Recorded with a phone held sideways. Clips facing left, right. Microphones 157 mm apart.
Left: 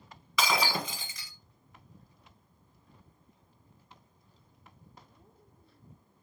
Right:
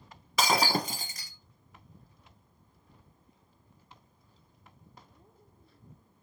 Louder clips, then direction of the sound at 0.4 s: Right 2 dB; 45° right (ahead or behind).